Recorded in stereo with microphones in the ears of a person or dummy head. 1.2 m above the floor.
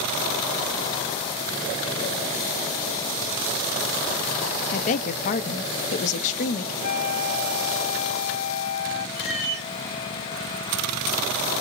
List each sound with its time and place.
4.7 s a woman speaking: 45° left (ahead or behind), 0.5 m
6.8 s a flute: 55° left (ahead or behind), 1.0 m
9.2 s a cat meowing: 30° right (ahead or behind), 2 m